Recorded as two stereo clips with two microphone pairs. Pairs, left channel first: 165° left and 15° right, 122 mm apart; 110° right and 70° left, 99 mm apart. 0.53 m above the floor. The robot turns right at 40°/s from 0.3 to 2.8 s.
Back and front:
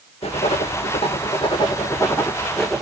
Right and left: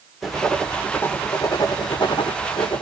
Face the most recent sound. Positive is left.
turn(degrees=-100)